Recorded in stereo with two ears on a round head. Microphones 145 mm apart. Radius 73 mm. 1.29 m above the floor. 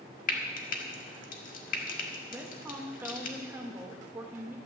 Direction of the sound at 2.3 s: 15° right (ahead or behind).